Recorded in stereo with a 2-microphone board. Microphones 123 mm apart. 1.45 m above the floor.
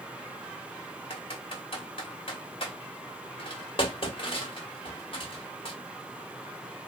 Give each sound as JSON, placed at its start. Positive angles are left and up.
{"t": 1.1, "sound": "typing on a keyboard", "side_deg": 45, "distance_m": 1.3}